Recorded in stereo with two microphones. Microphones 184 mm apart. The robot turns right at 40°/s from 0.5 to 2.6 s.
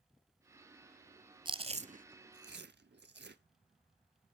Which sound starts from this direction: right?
Chewing, at 1.4 s.